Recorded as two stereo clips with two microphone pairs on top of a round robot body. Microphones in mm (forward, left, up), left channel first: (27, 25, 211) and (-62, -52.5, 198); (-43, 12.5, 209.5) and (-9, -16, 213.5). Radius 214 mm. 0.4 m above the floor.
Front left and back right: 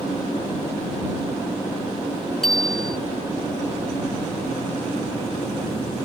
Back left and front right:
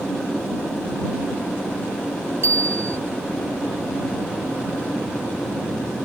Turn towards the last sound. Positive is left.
turn(degrees=-45)